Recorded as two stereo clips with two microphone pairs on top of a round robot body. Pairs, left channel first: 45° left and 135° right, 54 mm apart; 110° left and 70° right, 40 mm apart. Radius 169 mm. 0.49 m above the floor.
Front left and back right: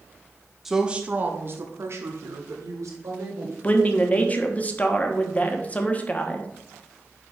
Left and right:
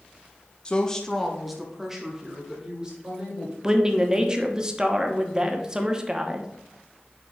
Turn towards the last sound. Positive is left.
turn(degrees=-5)